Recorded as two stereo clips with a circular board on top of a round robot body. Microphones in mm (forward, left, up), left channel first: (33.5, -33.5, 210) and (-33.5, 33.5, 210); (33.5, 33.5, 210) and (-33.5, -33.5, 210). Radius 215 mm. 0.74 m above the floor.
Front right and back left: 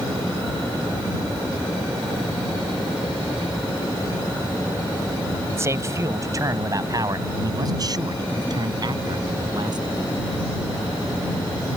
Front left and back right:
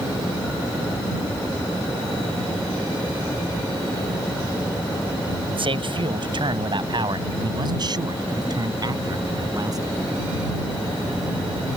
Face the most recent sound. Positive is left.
turn(degrees=175)